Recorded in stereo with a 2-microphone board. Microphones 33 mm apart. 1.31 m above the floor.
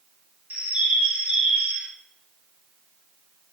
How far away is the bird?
About 0.9 m.